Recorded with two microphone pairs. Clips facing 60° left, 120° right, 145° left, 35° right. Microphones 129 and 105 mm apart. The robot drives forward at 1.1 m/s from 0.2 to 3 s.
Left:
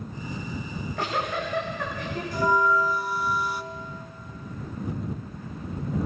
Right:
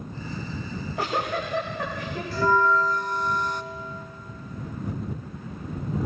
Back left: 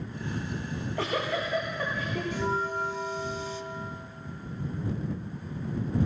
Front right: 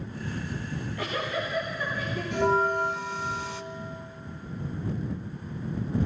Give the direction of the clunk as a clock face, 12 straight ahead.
No clunk in this recording.